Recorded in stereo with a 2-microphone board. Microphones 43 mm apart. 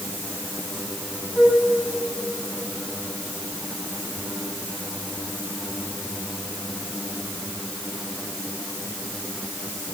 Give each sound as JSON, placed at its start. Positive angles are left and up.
{"t": 1.4, "sound": "a flute", "side_deg": -15, "distance_m": 4.0}